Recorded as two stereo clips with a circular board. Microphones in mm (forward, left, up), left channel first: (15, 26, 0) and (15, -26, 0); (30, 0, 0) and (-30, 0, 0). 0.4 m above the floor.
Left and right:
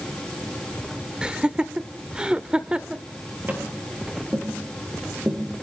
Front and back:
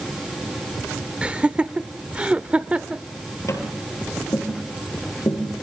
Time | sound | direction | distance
1.2 | laughter | 135° right | 0.8 m
3.5 | tapping | 30° right | 5 m